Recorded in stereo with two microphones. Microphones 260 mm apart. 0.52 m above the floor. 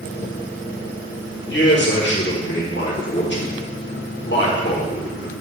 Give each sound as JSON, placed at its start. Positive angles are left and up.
{"t": 1.5, "sound": "a man speaking", "side_deg": 45, "distance_m": 1.4}